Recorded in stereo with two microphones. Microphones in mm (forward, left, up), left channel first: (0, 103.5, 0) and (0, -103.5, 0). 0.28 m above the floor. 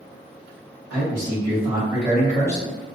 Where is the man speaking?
45° right (ahead or behind), 1.5 m; by 2.7 s 25° left (ahead or behind), 1.2 m.